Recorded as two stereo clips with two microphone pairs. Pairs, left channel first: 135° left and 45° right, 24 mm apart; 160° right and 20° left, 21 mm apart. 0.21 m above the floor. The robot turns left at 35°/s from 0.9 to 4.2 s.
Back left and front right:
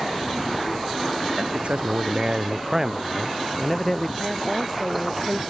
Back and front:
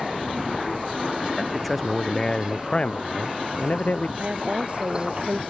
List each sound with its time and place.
1.4 s a man speaking: 65° right; by 4.1 s 160° right
4.2 s a woman speaking: 35° left